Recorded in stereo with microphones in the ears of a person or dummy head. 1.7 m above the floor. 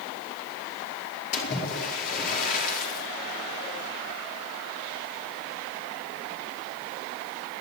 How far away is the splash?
About 4.5 m.